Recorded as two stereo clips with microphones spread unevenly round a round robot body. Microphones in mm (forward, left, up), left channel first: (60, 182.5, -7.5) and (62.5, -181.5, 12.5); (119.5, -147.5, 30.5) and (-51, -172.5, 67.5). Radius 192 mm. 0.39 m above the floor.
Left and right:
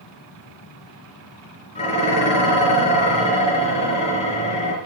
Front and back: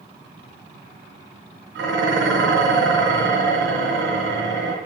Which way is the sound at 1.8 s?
165° left.